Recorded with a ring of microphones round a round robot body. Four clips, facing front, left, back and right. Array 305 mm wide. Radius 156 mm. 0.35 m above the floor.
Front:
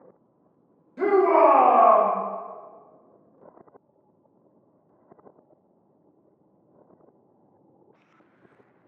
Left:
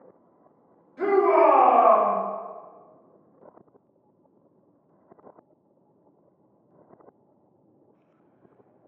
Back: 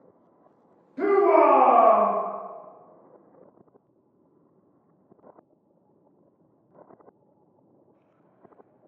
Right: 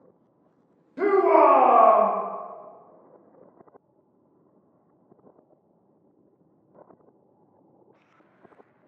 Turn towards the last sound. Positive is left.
turn(degrees=-90)